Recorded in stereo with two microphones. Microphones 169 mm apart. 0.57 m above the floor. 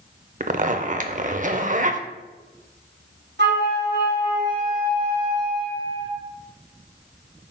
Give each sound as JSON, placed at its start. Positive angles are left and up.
{"t": 0.4, "sound": "a zipper", "side_deg": -50, "distance_m": 0.5}
{"t": 3.4, "sound": "a flute", "side_deg": -85, "distance_m": 2.5}